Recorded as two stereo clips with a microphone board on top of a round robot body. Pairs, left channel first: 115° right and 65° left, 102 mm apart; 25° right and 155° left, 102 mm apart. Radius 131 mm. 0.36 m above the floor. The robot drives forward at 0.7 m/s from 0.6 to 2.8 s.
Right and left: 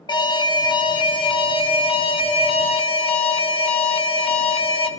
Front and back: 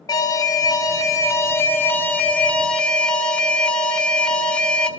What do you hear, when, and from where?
0.1 s an alarm: 75° right, 3 m; by 4.9 s 105° right, 3 m